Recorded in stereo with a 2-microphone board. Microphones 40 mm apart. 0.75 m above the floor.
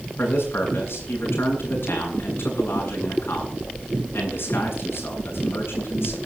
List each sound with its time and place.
0.2 s a man speaking: 75° left (ahead or behind), 7.5 m